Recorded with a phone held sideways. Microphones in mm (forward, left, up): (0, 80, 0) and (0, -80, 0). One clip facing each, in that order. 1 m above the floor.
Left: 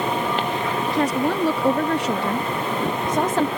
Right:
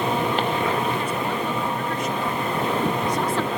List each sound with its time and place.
0.9 s a woman speaking: 75° left (ahead or behind); by 3.5 s 40° left (ahead or behind)